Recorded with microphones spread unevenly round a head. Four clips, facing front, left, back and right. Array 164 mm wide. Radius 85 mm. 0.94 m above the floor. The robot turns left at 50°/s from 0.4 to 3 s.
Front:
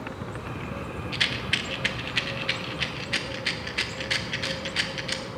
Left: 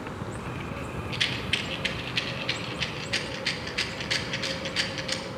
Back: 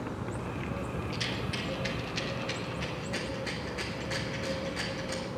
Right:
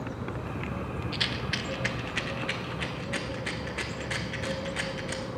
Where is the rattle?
35° right, 0.8 m; by 5.2 s 130° right, 0.8 m.